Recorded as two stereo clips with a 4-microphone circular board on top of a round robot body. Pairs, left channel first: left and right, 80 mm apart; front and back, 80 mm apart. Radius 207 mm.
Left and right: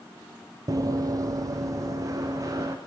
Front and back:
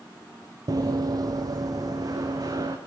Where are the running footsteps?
135° right, 1.0 m; by 2.8 s 140° right, 3.5 m.